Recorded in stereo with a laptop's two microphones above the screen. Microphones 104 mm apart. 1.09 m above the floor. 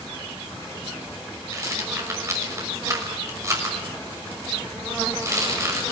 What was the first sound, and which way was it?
A rattle, 30° right (ahead or behind).